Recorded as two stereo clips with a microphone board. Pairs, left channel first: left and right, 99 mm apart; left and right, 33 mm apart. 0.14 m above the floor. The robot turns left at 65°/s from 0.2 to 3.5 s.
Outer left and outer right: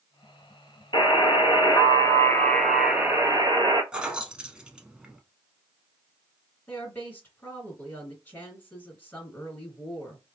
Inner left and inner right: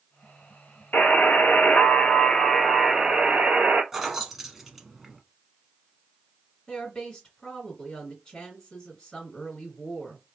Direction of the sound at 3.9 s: 10° right (ahead or behind).